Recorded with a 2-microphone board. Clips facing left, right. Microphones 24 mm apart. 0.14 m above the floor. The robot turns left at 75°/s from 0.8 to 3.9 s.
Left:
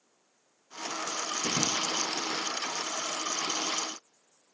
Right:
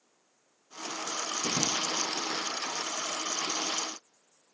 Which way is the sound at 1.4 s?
5° left (ahead or behind).